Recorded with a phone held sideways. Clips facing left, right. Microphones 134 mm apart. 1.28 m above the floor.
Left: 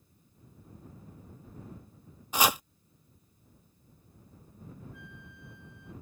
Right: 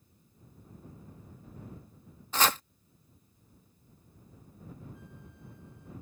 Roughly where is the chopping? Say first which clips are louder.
Left 1 dB; centre.